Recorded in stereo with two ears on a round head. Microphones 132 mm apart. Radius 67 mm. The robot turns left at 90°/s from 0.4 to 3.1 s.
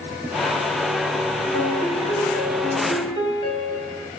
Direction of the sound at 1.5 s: 170° left.